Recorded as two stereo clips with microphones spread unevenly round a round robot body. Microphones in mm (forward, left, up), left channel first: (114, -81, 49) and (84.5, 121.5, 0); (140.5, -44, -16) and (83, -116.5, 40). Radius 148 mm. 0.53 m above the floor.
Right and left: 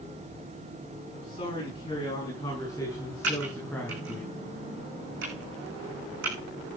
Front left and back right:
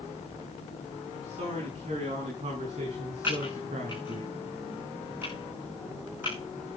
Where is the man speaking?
150° right, 7 m; by 4.2 s 170° right, 5.5 m.